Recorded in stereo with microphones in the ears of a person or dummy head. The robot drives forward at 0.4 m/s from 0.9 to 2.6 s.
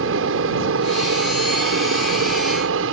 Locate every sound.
0.0 s an aircraft: 70° right (ahead or behind)